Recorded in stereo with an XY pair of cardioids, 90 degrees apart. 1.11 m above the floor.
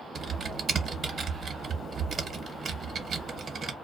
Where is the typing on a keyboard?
55° right, 0.8 m.